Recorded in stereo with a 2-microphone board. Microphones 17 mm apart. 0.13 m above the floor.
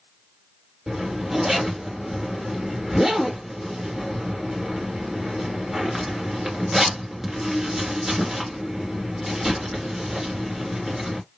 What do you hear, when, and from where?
0.9 s a zipper: 20° right (ahead or behind), 1.8 m